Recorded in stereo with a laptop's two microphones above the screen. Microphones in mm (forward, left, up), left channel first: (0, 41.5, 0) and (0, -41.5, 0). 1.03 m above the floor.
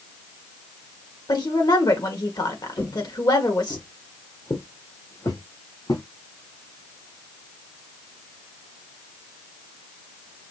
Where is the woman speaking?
55° left (ahead or behind), 1.6 m.